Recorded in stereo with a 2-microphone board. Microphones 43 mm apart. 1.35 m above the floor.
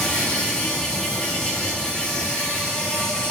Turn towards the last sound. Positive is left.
turn(degrees=15)  # may be behind; listen again after turning